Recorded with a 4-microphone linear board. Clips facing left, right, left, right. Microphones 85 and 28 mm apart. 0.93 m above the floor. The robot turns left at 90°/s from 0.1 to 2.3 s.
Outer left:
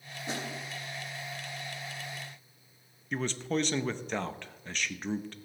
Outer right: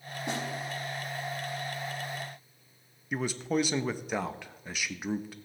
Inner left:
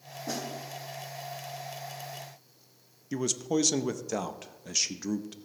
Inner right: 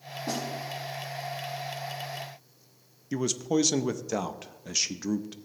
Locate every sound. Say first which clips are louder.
0.3 s a snare drum: outer right 3 dB, inner right 3 dB; 70° right (ahead or behind), 6 m; by 0.5 s 50° right (ahead or behind), 6 m
3.1 s a man speaking: outer right 2 dB, inner right 2 dB; 10° right (ahead or behind), 0.6 m